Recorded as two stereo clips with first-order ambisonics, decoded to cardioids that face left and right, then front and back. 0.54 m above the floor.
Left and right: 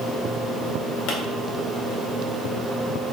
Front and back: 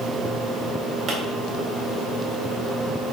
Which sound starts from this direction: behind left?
A pop, at 1.1 s.